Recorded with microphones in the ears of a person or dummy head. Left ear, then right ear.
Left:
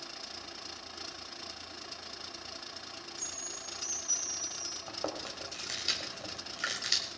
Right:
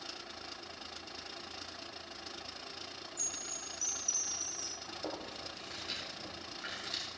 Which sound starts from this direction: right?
A chime, at 3.2 s.